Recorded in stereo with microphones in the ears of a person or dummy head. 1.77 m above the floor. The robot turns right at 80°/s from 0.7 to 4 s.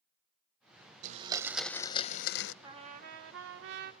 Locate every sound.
1.0 s a blender: 45° right, 0.6 m; by 2.5 s 75° left, 0.6 m
2.6 s a trumpet: 160° right, 1.4 m; by 3.9 s 60° right, 1.4 m